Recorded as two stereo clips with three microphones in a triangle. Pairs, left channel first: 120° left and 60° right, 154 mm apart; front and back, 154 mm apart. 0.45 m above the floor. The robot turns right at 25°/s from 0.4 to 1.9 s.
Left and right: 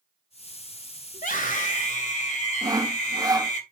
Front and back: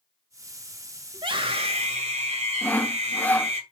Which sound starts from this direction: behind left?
A scream, at 1.1 s.